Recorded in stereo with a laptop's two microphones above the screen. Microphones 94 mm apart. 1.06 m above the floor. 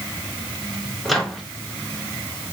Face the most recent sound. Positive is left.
turn(degrees=0)  # may be behind; listen again after turning